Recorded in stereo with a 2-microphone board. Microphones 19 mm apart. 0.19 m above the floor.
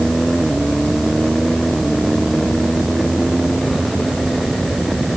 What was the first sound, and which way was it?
Only background noise.